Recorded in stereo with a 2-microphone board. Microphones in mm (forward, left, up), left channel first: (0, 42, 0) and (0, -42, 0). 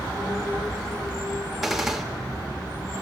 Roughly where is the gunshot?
Centre.